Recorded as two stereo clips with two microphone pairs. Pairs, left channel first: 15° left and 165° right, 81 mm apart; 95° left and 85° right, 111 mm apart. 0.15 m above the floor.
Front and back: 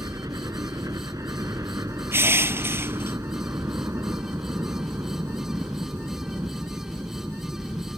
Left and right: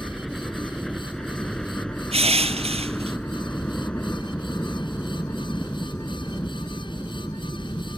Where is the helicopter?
Straight behind; by 8.0 s 155° left.